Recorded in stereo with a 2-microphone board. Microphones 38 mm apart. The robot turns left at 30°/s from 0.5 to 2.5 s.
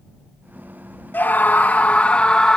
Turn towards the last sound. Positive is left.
turn(degrees=25)